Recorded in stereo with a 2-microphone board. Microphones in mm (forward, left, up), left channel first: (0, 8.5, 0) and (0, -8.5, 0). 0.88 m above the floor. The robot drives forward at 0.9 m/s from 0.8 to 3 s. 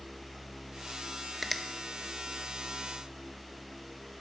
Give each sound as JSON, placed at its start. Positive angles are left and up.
{"t": 1.4, "sound": "a finger snap", "side_deg": 5, "distance_m": 0.8}